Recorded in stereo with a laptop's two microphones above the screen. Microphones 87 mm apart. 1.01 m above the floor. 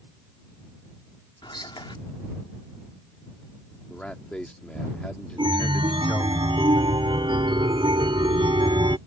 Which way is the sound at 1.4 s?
70° left (ahead or behind).